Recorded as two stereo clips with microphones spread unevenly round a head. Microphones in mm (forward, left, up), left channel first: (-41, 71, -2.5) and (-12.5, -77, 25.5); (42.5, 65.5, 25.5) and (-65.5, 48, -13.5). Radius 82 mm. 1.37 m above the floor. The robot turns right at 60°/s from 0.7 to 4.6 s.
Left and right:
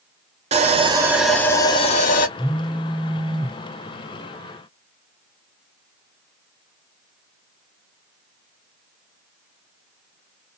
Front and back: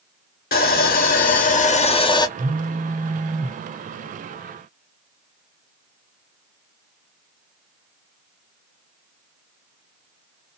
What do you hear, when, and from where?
0.5 s sawing: 20° right, 0.8 m; by 2.3 s 75° left, 0.8 m
2.4 s a phone buzzing: 175° right, 0.5 m; by 3.6 s 105° right, 0.5 m